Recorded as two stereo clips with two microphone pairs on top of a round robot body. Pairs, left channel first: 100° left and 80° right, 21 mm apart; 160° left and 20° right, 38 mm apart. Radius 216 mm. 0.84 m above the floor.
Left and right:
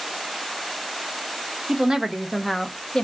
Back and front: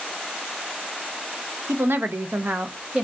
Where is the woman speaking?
35° right, 0.9 m; by 3.0 s 45° left, 0.8 m.